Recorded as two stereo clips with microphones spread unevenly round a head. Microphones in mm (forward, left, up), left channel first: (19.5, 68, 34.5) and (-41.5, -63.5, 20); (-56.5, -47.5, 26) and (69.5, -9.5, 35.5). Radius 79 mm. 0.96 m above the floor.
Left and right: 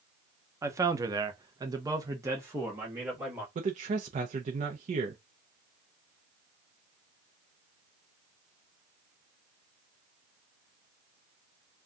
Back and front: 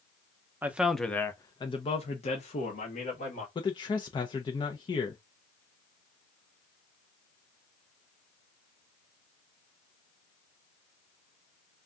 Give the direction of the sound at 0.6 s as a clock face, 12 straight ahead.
2 o'clock.